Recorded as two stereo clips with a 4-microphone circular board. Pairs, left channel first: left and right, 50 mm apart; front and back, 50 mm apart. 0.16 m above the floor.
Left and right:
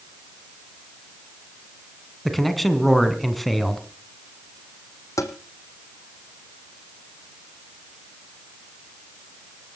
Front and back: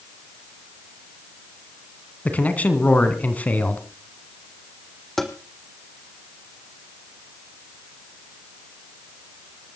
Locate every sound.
2.2 s a man speaking: 5° left, 1.9 m
5.2 s tapping: 85° left, 1.5 m